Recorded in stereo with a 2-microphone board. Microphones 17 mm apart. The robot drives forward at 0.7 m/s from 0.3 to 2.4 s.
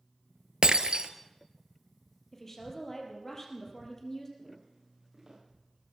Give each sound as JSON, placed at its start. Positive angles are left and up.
{"t": 0.6, "sound": "breaking glass", "side_deg": -60, "distance_m": 0.9}
{"t": 2.3, "sound": "a woman speaking", "side_deg": 20, "distance_m": 3.5}
{"t": 4.4, "sound": "footsteps", "side_deg": -30, "distance_m": 8.5}